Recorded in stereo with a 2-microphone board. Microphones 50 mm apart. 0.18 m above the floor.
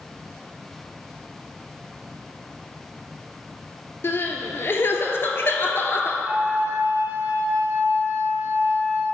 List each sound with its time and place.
4.0 s crying: 55° left (ahead or behind), 0.7 m
6.2 s a flute: 50° right (ahead or behind), 2 m